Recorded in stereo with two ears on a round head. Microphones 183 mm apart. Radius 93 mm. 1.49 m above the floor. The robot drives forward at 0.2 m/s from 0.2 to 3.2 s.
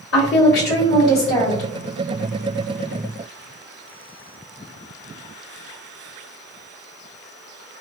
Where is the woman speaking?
60° left (ahead or behind), 1.0 m; by 1.7 s 50° left (ahead or behind), 1.1 m.